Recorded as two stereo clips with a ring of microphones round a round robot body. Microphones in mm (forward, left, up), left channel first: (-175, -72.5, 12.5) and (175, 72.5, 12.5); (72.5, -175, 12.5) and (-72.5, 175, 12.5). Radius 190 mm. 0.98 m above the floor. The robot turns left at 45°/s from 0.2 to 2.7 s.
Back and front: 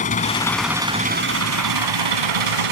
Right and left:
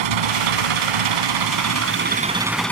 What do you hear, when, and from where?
0.0 s an engine running: 130° left; by 2.7 s 20° left